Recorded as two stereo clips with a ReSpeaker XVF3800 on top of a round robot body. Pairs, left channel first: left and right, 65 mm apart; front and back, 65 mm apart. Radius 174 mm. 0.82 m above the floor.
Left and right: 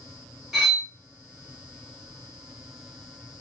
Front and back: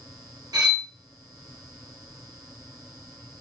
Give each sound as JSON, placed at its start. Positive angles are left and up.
{"t": 0.5, "sound": "cutlery clinking", "azimuth_deg": -175, "distance_m": 1.3}